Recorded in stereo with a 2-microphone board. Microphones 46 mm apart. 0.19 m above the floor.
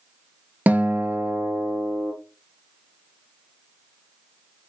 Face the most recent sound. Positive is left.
turn(degrees=-40)  # may be behind; listen again after turning